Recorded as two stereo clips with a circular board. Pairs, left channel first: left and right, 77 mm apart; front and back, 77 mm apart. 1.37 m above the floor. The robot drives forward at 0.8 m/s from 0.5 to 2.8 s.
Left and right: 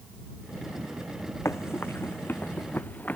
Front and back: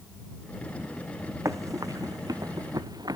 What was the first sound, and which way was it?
Running footsteps, 140° left.